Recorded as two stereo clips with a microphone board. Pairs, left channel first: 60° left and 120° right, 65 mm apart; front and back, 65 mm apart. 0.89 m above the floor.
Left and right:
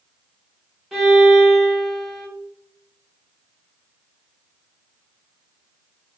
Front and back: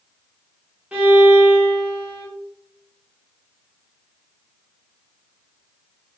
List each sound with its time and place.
0.9 s a violin: 150° left, 0.9 m